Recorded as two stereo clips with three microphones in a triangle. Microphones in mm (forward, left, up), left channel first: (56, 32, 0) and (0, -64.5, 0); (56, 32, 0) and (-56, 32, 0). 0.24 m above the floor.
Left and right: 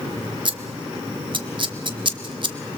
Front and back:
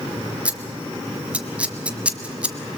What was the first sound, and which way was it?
Scissors, 105° right.